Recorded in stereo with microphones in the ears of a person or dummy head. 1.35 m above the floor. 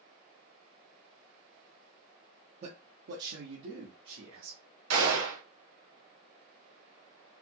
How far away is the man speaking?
About 0.5 m.